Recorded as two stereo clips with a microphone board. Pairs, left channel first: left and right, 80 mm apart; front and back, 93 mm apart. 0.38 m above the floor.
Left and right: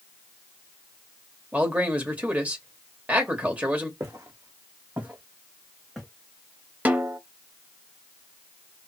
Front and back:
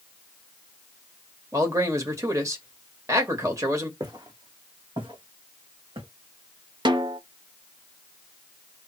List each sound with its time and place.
1.5 s a man speaking: 150° right, 1.7 m
4.0 s footsteps: 140° right, 1.8 m; by 6.1 s straight behind, 1.6 m
6.8 s a snare drum: 155° right, 0.7 m